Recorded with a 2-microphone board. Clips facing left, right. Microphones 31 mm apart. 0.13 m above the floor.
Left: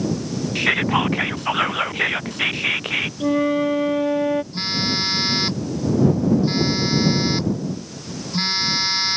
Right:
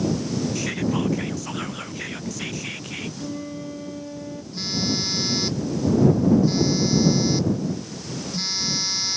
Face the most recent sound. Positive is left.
turn(degrees=35)  # may be behind; listen again after turning